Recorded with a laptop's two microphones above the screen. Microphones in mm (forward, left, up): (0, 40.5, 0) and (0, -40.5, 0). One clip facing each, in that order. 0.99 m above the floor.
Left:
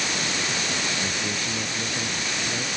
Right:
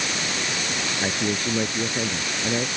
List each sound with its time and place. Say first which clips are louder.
1.0 s a man speaking: right 4 dB; 45° right (ahead or behind); by 2.7 s 40° right (ahead or behind)